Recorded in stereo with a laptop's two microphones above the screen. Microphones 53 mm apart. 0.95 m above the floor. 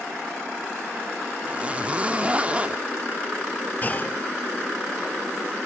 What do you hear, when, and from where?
1.4 s a zipper: 25° right (ahead or behind), 0.6 m
3.8 s a clunk: 35° left (ahead or behind), 0.9 m